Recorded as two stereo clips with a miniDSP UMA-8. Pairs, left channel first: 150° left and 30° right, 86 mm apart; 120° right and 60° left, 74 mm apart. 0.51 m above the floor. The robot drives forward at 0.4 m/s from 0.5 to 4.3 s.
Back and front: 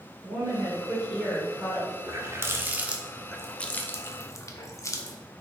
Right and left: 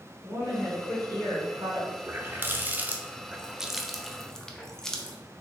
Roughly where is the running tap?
Ahead.